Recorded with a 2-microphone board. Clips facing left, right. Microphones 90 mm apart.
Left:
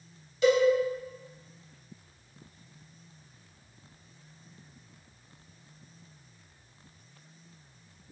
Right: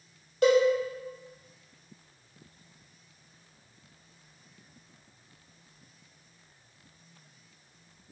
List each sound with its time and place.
0.4 s a cowbell: 50° right (ahead or behind), 1.4 m